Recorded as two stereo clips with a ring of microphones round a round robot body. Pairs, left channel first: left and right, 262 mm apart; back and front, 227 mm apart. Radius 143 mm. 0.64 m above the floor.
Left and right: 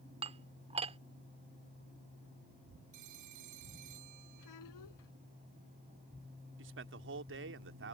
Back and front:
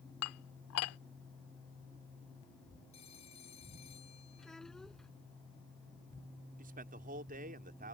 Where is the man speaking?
55° right.